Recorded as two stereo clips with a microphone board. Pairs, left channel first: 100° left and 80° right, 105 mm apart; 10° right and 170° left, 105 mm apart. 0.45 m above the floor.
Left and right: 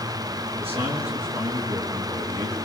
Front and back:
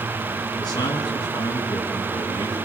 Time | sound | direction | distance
0.6 | a man speaking | 60° right | 7.5 m